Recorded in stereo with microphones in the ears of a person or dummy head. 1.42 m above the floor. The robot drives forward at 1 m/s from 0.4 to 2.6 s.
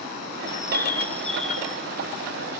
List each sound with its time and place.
0.5 s a bird: 30° left (ahead or behind), 0.5 m; by 1.9 s 5° left (ahead or behind), 1.8 m